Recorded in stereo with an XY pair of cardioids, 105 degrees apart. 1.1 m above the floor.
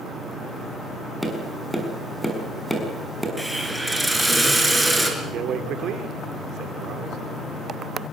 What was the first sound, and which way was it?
Tapping, 5° left.